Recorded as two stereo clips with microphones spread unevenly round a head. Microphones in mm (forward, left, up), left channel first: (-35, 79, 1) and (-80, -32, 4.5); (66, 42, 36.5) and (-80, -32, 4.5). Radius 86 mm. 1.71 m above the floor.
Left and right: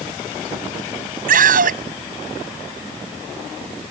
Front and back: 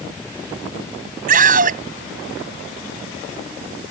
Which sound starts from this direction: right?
A scream, at 1.3 s.